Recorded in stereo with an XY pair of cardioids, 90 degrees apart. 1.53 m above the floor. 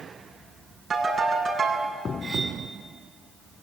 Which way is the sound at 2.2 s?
35° right.